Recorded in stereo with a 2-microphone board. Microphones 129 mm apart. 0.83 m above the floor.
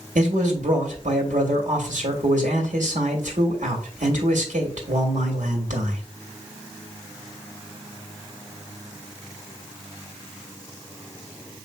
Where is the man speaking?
80° right, 1.7 m.